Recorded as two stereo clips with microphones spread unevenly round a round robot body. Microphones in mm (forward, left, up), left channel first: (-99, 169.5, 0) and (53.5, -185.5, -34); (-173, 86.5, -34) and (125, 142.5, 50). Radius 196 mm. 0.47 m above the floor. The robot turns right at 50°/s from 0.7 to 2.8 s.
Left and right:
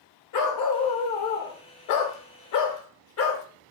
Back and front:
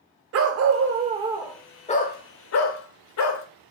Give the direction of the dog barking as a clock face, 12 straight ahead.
10 o'clock.